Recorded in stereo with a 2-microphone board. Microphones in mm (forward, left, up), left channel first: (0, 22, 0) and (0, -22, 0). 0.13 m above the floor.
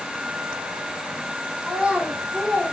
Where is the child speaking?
25° right (ahead or behind), 4 m; by 2.7 s 15° right (ahead or behind), 4 m.